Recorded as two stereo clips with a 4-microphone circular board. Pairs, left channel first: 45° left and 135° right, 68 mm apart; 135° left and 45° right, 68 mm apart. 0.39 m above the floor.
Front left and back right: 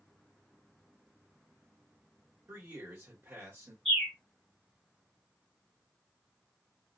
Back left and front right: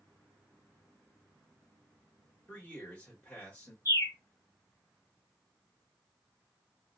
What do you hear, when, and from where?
2.5 s a man speaking: 170° right, 1.1 m
3.9 s a bird: 130° left, 1.2 m